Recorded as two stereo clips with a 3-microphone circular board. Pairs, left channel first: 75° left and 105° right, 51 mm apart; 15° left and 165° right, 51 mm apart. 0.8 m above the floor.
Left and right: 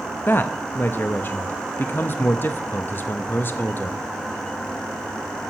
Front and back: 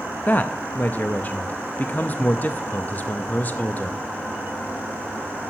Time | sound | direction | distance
0.3 | a man speaking | 55° left | 0.5 m